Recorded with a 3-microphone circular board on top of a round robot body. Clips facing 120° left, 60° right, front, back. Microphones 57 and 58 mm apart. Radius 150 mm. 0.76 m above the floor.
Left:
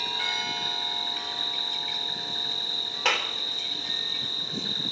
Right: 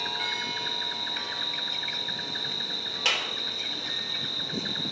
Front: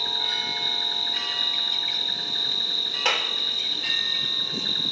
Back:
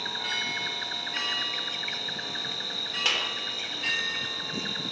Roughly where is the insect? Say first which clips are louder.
Left 1 dB, front 1 dB; behind right.